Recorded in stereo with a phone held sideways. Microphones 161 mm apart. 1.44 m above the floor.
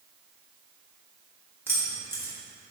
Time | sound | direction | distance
1.7 | keys jangling | 15° right (ahead or behind) | 1.4 m